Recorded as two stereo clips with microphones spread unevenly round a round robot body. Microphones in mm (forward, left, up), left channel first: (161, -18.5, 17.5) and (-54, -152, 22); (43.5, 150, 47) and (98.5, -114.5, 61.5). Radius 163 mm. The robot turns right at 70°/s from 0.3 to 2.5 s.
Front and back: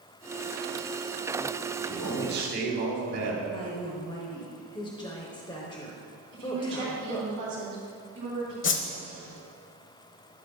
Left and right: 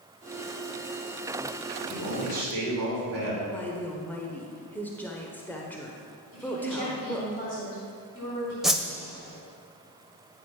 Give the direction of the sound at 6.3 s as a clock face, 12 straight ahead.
6 o'clock.